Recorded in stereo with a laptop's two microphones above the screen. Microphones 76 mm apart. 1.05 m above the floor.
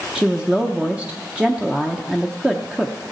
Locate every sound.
0.1 s a woman speaking: 15° right (ahead or behind), 0.6 m